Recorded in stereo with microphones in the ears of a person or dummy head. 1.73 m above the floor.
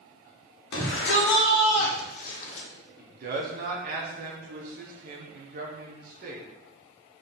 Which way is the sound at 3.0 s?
50° right (ahead or behind).